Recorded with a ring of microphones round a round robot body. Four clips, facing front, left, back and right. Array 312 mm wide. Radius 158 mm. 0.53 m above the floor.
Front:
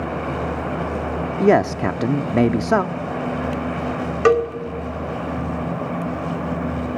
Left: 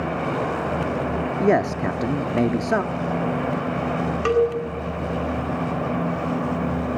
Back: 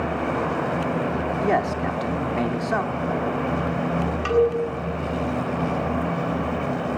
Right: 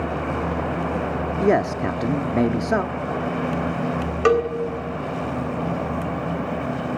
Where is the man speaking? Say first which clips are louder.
Even, front 8 dB; straight ahead, 0.8 m.